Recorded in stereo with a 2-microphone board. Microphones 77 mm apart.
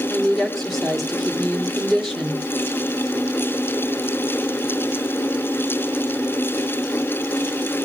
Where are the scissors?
No scissors in this recording.